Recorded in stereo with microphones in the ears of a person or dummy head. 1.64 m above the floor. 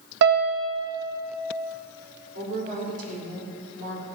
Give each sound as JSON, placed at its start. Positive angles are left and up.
{"t": 0.2, "sound": "a piano", "side_deg": -55, "distance_m": 0.7}
{"t": 2.4, "sound": "a woman speaking", "side_deg": -50, "distance_m": 3.5}